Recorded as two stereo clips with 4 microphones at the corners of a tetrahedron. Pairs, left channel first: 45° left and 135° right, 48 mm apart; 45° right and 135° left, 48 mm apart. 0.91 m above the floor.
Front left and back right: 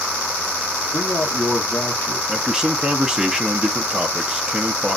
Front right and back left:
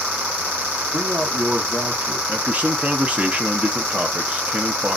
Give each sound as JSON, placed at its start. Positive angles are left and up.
{"t": 0.9, "sound": "a man speaking", "azimuth_deg": 105, "distance_m": 0.9}
{"t": 2.3, "sound": "a man speaking", "azimuth_deg": 155, "distance_m": 0.6}